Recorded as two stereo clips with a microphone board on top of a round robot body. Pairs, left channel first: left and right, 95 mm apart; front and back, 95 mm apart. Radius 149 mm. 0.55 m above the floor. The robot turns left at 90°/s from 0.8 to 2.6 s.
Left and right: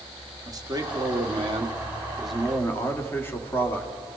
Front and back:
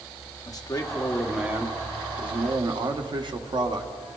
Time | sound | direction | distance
0.5 | a man speaking | 45° right | 2.0 m